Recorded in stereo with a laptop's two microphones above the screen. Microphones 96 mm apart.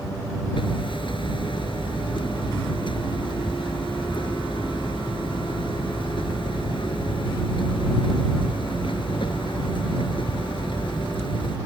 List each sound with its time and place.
0.6 s hammering: 65° left (ahead or behind)